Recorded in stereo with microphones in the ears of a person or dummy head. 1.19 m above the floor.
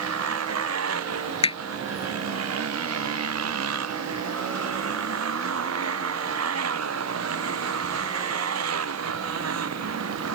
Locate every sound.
0.0 s a motorcycle: 85° right
1.4 s hammering: 25° left (ahead or behind)